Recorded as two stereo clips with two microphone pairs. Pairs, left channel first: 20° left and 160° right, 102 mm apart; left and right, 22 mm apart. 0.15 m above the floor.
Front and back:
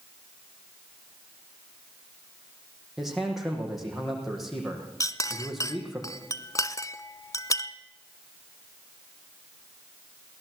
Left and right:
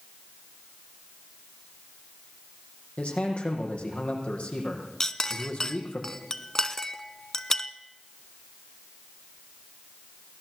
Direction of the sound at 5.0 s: 40° left.